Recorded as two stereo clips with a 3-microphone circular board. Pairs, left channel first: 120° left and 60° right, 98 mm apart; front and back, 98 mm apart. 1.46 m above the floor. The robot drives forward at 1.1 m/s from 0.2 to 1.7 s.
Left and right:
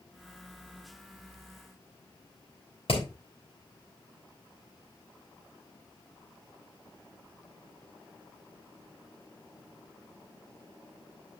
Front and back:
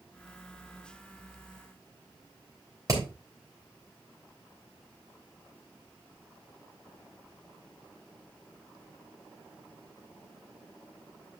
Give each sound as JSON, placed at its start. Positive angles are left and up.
{"t": 2.9, "sound": "hammering", "azimuth_deg": 125, "distance_m": 3.0}